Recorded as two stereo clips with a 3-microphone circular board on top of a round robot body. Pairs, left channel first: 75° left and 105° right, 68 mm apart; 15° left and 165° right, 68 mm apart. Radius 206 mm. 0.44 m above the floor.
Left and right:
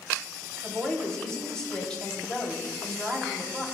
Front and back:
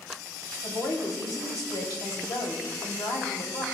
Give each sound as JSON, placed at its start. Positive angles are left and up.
{"t": 0.6, "sound": "a woman speaking", "azimuth_deg": -5, "distance_m": 3.5}